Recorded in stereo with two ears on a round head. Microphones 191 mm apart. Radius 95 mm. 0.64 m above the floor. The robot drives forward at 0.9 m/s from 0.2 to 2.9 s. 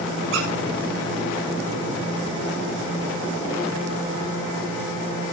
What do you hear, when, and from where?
0.3 s a squeak: 65° right (ahead or behind), 8.5 m